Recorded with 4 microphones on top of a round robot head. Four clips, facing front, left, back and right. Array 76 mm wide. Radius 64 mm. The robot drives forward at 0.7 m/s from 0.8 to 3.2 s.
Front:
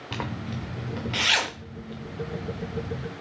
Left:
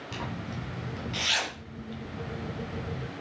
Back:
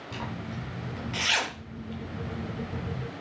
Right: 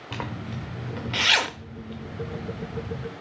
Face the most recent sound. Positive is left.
turn(degrees=-160)